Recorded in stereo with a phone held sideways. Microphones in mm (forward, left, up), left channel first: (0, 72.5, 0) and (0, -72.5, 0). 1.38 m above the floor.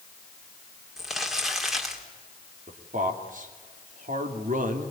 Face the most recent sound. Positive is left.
turn(degrees=-65)  # may be behind; listen again after turning